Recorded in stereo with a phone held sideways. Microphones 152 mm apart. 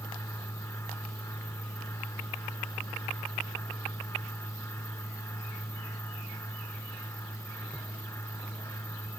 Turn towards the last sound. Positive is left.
turn(degrees=20)  # may be behind; listen again after turning